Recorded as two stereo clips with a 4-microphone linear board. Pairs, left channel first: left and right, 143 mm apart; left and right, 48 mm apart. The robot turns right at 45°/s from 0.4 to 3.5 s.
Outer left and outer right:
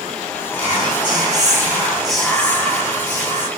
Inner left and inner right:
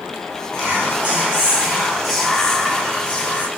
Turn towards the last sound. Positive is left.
turn(degrees=60)